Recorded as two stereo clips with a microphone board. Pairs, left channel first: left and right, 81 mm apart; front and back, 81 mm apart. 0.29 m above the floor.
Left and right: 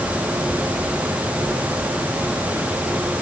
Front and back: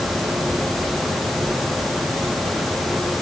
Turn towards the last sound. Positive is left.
No sound to turn to.